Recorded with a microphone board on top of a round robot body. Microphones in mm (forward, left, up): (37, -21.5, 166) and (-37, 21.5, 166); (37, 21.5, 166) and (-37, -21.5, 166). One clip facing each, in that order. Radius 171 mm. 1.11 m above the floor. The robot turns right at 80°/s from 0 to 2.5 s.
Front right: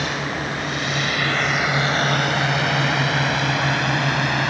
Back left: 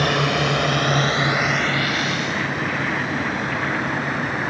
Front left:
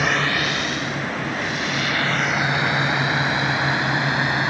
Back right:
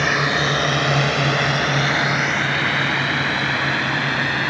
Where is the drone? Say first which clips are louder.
Back left 5 dB, back right 2 dB; 115° left; by 4.5 s 40° right.